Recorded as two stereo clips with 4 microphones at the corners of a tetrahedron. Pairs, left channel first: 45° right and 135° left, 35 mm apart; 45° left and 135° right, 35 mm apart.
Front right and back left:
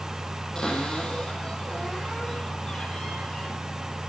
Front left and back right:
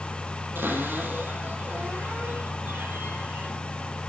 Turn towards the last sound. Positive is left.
turn(degrees=-115)